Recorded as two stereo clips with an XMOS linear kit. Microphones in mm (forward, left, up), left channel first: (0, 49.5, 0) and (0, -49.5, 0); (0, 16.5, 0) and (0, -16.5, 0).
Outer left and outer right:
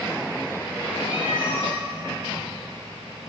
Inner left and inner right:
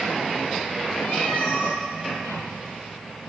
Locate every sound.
1.0 s a cat meowing: 55° left (ahead or behind), 4 m